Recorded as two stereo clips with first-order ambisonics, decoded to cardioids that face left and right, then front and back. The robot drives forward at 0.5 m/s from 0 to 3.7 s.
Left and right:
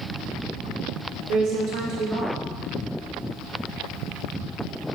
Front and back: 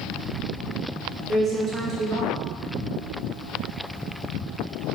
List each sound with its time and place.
1.3 s a woman speaking: 115° right, 1.3 m; by 2.4 s 135° right, 1.5 m